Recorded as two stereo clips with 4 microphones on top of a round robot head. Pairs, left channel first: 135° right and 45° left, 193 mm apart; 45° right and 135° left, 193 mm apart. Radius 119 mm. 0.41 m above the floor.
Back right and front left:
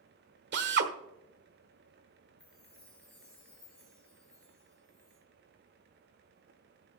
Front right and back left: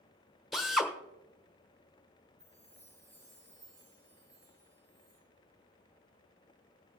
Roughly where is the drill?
Ahead left.